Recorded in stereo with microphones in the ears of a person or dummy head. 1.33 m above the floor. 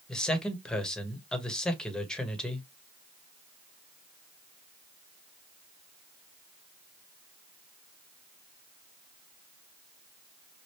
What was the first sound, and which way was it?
A man speaking, 5° left (ahead or behind).